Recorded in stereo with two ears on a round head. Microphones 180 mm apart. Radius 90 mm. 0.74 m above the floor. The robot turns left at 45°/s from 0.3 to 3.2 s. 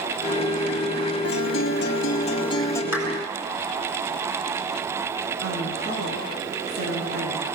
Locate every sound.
1.2 s a guitar: 80° left, 2.5 m; by 2.8 s 10° left, 2.5 m
2.9 s a clap: 10° right (ahead or behind), 8 m; by 3.1 s 20° right (ahead or behind), 8 m
5.4 s a woman speaking: 55° right (ahead or behind), 9 m